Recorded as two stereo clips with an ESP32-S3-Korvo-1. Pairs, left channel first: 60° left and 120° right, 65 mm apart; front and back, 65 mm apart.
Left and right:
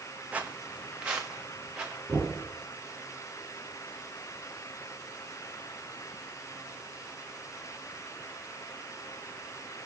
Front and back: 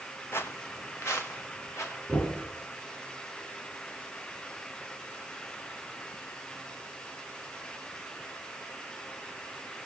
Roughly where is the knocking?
Ahead right.